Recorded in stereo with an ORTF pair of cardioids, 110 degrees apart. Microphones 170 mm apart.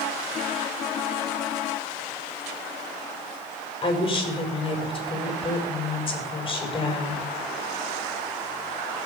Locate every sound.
3.8 s a woman speaking: 30° left, 5.5 m